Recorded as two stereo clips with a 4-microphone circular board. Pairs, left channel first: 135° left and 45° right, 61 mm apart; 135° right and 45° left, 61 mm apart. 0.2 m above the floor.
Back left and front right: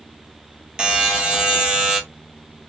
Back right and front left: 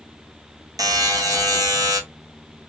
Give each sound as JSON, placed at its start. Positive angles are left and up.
{"t": 0.8, "sound": "a buzzer", "azimuth_deg": 30, "distance_m": 1.1}